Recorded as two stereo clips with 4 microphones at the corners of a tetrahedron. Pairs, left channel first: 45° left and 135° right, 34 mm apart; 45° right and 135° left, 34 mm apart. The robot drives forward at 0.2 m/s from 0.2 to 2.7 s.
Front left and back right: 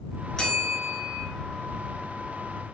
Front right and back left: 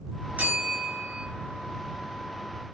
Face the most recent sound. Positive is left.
turn(degrees=135)